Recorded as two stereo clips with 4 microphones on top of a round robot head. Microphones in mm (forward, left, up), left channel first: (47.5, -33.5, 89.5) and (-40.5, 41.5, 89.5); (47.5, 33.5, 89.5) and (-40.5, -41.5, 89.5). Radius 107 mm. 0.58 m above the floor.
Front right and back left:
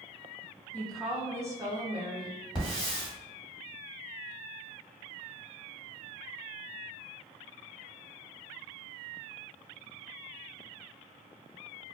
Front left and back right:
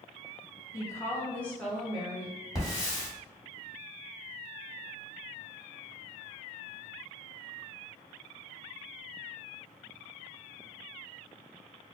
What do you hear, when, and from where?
0.7 s a woman speaking: 20° left, 0.8 m; by 2.4 s 135° left, 1.1 m
2.5 s a hiss: straight ahead, 1.6 m